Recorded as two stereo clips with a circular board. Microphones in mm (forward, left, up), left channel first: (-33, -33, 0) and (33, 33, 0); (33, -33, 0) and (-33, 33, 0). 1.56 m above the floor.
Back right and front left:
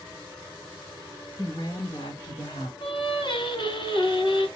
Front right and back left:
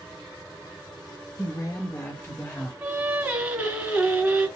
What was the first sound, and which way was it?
A woman speaking, 90° right.